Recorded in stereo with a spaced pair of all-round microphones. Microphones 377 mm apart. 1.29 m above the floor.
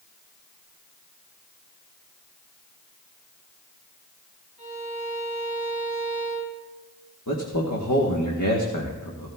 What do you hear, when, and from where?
4.6 s a violin: 75° left (ahead or behind), 5 m
7.3 s a man speaking: 50° left (ahead or behind), 1.4 m